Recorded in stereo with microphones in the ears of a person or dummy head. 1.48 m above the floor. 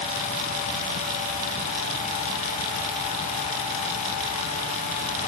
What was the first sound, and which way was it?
Only background noise.